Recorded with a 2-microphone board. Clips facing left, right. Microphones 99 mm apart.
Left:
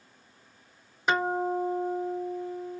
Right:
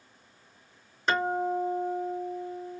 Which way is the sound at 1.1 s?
10° left (ahead or behind).